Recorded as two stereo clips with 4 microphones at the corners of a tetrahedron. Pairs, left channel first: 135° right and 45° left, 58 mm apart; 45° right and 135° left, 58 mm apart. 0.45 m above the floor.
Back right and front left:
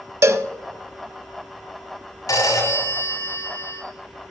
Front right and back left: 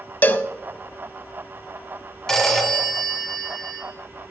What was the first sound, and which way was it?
A cowbell, 15° left.